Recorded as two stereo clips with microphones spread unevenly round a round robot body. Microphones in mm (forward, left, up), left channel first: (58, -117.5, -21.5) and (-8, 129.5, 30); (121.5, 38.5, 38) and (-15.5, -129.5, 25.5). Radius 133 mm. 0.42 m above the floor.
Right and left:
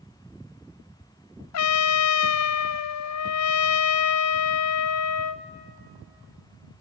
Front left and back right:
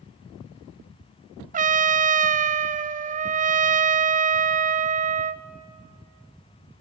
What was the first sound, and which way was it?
A trumpet, 75° right.